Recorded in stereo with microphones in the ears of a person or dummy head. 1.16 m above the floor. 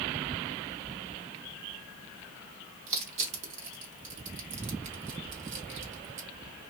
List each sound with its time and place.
2.9 s crushing: 40° right (ahead or behind), 1.1 m